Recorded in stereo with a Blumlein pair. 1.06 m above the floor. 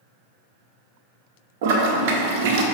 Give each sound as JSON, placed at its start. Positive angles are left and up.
{"t": 1.6, "sound": "a toilet flushing", "azimuth_deg": -50, "distance_m": 0.6}